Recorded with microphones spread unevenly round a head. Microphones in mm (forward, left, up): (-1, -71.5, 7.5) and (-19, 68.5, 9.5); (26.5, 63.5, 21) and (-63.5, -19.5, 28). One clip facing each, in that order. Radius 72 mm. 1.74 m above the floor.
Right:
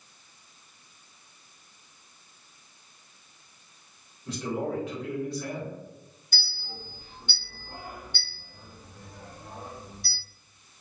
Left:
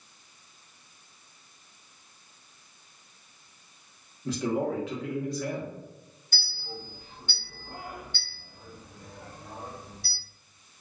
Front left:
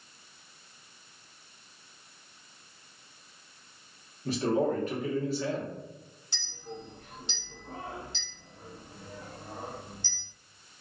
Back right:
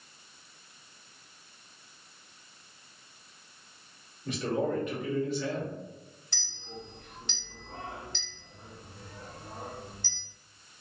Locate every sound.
4.2 s a man speaking: 100° left, 0.9 m
6.3 s a clink: 25° right, 1.1 m